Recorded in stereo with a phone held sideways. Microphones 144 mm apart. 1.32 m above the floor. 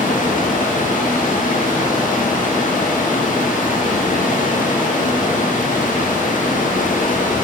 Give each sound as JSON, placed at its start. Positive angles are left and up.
{"t": 0.0, "sound": "running water", "side_deg": 65, "distance_m": 1.0}